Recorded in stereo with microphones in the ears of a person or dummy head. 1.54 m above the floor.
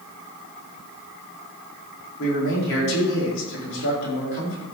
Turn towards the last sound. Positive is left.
turn(degrees=65)  # may be behind; listen again after turning